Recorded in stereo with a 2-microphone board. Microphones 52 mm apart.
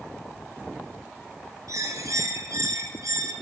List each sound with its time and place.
1.7 s a bird: 85° right, 2.0 m